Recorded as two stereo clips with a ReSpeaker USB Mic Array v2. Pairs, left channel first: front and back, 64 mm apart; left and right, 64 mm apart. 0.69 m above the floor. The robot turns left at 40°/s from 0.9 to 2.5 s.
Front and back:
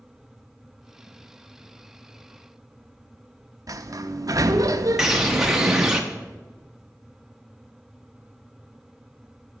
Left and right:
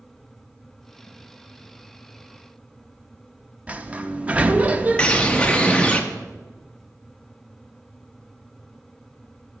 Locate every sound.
3.7 s a sliding door: 160° right, 0.6 m
5.0 s a bird: 115° left, 1.0 m